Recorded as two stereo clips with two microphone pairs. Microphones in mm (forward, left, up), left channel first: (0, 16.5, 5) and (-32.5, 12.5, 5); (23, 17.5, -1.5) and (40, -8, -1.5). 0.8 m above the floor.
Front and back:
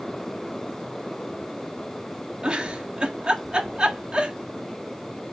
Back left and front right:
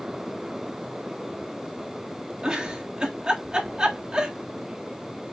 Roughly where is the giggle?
Right.